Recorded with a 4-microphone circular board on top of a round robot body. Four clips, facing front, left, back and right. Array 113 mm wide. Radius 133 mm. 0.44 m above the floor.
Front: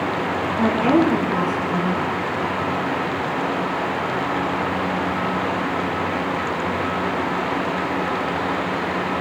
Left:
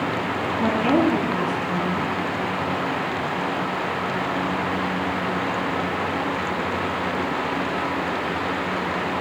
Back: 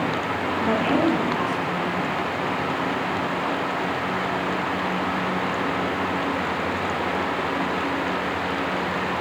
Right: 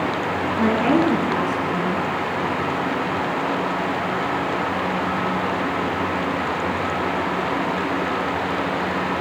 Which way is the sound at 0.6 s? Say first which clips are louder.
Right 2 dB, front 5 dB; 50° right.